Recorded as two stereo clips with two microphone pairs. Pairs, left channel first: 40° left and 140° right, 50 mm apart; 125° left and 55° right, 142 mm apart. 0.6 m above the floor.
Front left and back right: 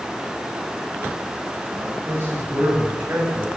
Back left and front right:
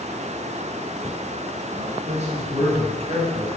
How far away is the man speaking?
About 5.5 m.